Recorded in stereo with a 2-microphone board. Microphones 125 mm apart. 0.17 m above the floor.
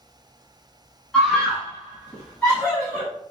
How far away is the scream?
About 1.7 m.